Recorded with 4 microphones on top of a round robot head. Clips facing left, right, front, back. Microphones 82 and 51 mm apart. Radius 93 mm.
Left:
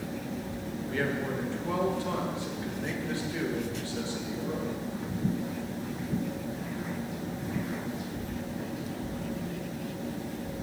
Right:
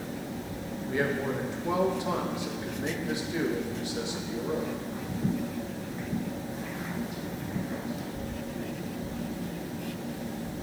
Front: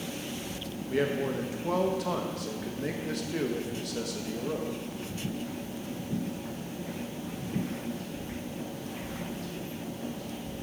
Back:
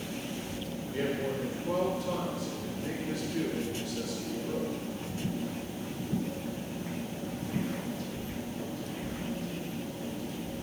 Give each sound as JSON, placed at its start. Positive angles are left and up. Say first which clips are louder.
{"t": 0.9, "sound": "a man speaking", "louder": "right 2 dB, front 4 dB", "azimuth_deg": -15, "distance_m": 1.6}